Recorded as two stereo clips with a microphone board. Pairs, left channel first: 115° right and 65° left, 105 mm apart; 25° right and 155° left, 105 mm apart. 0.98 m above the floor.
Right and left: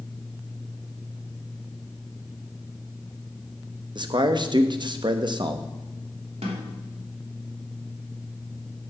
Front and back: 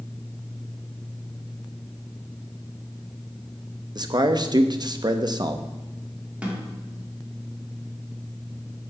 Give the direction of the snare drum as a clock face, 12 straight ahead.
9 o'clock.